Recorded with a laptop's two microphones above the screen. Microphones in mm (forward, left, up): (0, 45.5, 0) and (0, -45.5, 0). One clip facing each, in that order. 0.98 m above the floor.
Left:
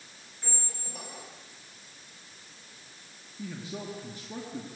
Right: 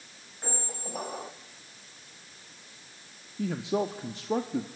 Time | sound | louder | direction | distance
0.4 | a squeak | right 8 dB | 40° right (ahead or behind) | 0.7 m
3.4 | a man speaking | right 10 dB | 80° right | 1.2 m